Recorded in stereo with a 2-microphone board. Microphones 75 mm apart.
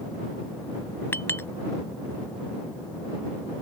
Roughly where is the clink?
Left.